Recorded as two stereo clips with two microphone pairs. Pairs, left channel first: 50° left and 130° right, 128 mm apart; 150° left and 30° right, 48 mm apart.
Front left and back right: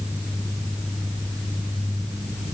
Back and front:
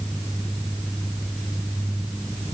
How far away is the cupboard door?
I don't hear a cupboard door.